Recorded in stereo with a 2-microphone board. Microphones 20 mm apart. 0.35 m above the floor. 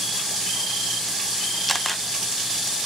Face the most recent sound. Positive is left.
turn(degrees=5)  # may be behind; listen again after turning